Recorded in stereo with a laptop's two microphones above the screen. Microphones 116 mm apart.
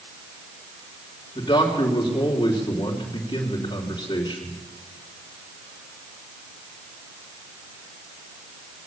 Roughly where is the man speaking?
Left.